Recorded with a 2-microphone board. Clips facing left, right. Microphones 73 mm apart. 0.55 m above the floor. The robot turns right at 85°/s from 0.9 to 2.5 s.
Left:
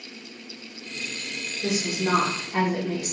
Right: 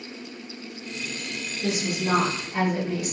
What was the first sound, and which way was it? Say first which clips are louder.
A woman speaking: left 1 dB; 15° left.